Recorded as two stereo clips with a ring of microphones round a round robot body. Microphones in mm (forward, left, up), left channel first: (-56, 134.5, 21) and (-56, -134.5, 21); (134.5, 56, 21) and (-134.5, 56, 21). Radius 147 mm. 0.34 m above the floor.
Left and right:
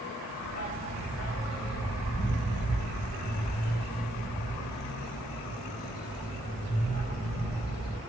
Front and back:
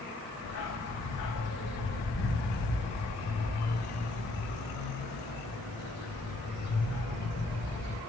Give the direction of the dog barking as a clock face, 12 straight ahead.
11 o'clock.